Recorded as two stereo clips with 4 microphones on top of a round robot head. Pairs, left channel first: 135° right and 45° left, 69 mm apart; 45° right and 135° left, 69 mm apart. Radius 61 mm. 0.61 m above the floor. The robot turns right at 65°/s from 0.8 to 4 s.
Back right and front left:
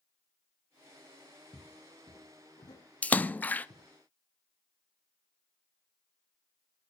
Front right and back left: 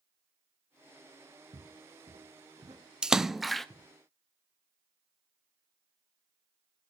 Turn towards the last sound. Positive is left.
turn(degrees=-100)